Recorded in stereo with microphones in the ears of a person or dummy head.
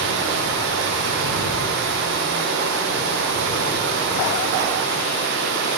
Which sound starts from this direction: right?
Running water, at 0.0 s.